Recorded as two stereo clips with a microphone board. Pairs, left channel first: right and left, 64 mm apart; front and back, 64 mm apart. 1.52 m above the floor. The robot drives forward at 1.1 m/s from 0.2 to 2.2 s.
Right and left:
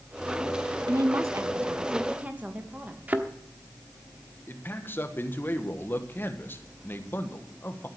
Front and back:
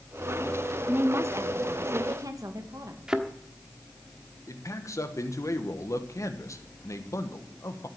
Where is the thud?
120° left, 1.1 m.